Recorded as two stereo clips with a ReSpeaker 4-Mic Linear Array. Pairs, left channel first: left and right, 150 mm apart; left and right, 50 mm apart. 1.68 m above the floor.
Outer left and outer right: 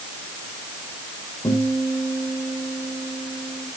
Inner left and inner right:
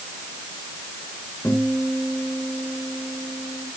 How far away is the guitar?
About 9.5 m.